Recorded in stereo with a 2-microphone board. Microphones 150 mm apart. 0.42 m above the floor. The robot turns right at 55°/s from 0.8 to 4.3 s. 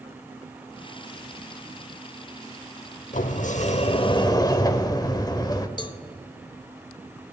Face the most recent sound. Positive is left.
turn(degrees=30)  # may be behind; listen again after turning